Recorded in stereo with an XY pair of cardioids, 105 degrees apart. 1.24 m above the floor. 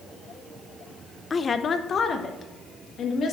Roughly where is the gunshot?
No gunshot in this recording.